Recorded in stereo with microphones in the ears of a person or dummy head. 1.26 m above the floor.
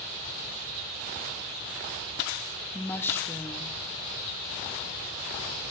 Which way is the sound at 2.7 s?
15° left (ahead or behind).